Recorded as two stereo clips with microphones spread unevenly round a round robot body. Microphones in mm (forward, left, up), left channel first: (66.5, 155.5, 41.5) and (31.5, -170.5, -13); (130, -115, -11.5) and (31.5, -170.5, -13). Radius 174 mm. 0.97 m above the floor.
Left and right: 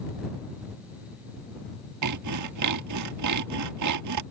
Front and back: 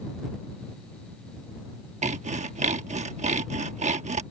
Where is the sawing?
140° right.